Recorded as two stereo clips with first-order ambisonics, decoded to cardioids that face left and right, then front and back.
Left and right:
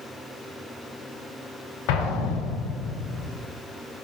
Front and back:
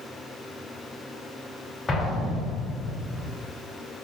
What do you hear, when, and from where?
1.9 s an explosion: 75° left, 0.5 m